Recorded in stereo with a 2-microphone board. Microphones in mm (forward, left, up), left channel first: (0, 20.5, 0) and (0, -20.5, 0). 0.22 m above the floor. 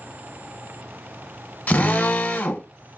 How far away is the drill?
About 0.7 m.